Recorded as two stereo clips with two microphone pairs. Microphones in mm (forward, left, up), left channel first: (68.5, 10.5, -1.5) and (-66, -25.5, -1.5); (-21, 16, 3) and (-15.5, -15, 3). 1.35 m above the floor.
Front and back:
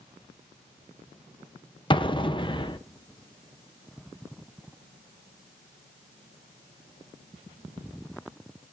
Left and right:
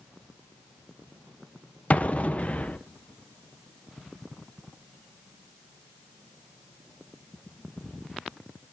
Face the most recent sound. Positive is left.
turn(degrees=65)